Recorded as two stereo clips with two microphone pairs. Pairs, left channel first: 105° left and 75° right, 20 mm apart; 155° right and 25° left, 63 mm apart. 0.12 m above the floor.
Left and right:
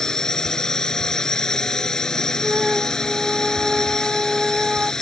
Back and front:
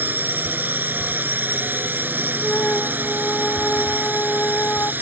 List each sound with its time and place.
0.0 s a drone: 60° left
2.4 s a flute: 100° right